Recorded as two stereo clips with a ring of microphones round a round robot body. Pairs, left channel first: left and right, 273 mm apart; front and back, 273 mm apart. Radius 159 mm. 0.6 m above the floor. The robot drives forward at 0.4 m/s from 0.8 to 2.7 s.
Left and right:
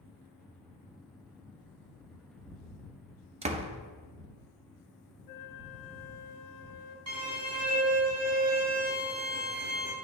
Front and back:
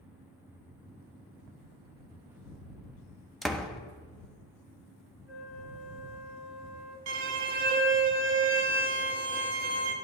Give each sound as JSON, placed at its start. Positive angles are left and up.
{"t": 3.4, "sound": "a door slam", "azimuth_deg": -90, "distance_m": 0.6}
{"t": 5.3, "sound": "a flute", "azimuth_deg": 90, "distance_m": 0.8}
{"t": 7.1, "sound": "a violin", "azimuth_deg": -135, "distance_m": 0.8}